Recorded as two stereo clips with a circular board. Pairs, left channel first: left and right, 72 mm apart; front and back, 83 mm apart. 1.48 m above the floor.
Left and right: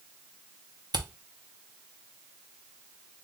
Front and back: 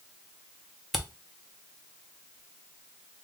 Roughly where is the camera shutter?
Right.